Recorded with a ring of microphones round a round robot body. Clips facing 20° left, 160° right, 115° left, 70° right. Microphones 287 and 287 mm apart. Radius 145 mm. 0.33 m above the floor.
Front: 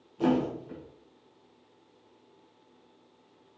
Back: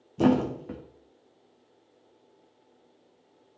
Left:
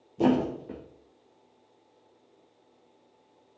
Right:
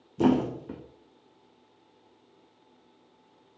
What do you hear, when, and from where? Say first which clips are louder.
0.2 s a thud: back 3 dB, right 1 dB; 130° right, 2 m